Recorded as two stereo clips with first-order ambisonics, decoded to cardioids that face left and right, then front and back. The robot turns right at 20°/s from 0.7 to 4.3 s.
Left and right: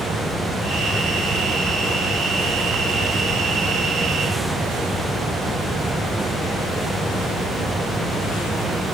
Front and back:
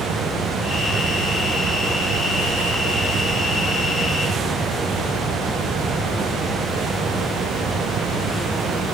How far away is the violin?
I don't hear a violin.